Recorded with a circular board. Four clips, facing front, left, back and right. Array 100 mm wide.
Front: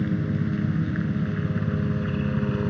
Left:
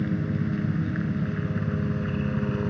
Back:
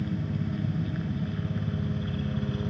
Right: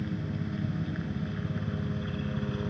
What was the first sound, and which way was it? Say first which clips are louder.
A helicopter: left 7 dB, front 6 dB; 35° left.